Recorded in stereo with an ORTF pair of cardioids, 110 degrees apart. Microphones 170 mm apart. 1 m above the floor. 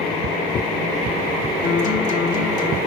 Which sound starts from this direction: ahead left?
A guitar, at 1.6 s.